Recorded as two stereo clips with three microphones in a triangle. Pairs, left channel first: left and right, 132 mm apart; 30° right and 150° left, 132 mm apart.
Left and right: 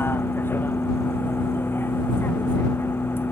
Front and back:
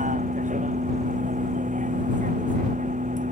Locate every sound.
0.0 s a vehicle: 165° left